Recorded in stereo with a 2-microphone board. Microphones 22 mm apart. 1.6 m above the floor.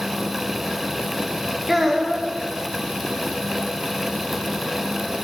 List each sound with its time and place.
1.7 s a child speaking: 10° right (ahead or behind), 0.5 m